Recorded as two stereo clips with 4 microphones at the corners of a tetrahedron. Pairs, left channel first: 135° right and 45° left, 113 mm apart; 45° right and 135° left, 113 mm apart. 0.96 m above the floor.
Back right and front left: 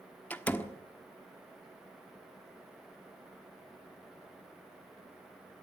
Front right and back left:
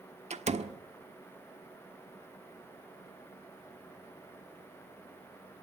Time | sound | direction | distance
0.3 | a door slam | 150° left | 1.3 m